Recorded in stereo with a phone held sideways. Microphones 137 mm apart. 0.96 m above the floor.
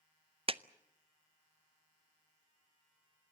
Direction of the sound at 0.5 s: 40° right (ahead or behind).